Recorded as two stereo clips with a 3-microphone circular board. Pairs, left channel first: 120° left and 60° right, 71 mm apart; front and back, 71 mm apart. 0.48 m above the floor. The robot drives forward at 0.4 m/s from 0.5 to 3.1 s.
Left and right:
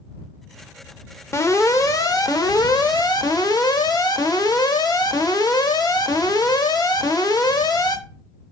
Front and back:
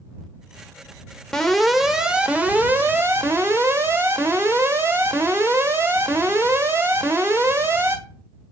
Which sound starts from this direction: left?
An alarm, at 1.3 s.